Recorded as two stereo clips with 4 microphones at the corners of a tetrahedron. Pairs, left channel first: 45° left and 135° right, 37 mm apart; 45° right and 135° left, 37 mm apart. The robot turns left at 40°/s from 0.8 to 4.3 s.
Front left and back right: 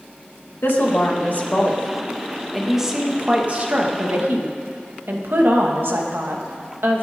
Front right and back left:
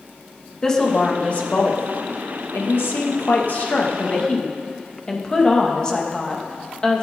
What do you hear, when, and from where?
0.6 s a woman speaking: 25° left, 2.5 m; by 7.0 s 115° right, 2.5 m